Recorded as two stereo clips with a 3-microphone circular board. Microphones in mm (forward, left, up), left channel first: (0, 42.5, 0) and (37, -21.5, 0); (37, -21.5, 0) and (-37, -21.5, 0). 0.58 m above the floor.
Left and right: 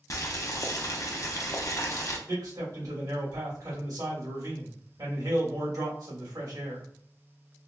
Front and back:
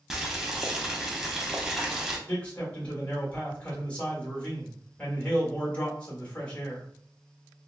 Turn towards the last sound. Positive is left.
turn(degrees=-70)